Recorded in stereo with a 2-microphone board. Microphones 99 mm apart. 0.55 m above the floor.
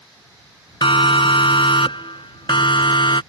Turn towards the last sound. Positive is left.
turn(degrees=60)  # may be behind; listen again after turning